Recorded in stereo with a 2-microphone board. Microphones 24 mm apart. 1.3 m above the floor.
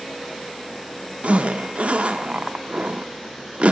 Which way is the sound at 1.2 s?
60° right (ahead or behind).